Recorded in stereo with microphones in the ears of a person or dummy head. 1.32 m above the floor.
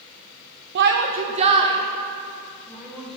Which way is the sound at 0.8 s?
60° right (ahead or behind).